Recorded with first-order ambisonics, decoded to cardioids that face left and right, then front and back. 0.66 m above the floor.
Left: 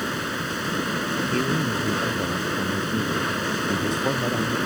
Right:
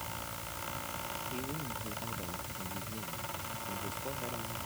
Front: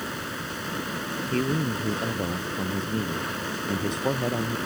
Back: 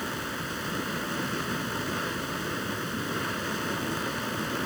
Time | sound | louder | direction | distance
0.0 | running water | left 15 dB, even | 90° left | ?
1.3 | a man speaking | left 16 dB, front 4 dB | 45° left | ?